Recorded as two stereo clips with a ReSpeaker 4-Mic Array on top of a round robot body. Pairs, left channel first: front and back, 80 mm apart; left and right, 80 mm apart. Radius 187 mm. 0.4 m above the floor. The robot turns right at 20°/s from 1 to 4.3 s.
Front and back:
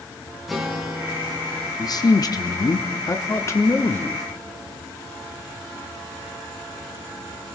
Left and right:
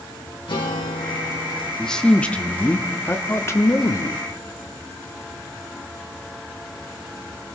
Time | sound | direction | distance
0.5 | a guitar | 90° left | 2.5 m
1.8 | a man speaking | 10° left | 1.3 m